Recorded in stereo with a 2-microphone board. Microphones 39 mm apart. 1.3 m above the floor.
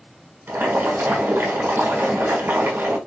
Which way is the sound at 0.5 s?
75° right (ahead or behind).